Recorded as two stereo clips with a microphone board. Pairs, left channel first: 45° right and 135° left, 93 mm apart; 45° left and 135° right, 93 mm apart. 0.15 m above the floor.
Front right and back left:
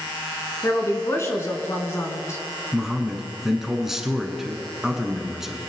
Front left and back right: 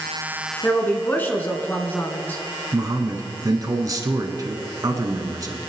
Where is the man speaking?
140° right, 1.4 m.